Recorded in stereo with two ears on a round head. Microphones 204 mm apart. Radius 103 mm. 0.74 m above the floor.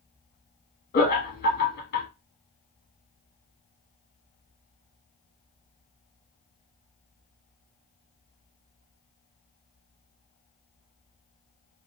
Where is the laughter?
45° left (ahead or behind), 1.3 m.